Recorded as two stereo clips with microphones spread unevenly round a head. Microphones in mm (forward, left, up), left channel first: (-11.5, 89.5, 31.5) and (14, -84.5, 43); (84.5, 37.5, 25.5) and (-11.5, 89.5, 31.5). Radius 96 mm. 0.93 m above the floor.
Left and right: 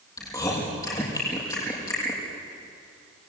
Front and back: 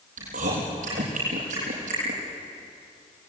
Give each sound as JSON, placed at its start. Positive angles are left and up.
{"t": 0.2, "sound": "chewing", "azimuth_deg": 170, "distance_m": 7.0}